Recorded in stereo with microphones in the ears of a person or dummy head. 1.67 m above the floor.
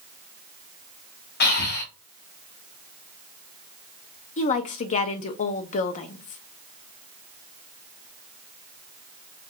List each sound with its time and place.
1.4 s breathing: 60° left (ahead or behind), 0.8 m
4.4 s a woman speaking: 40° left (ahead or behind), 0.6 m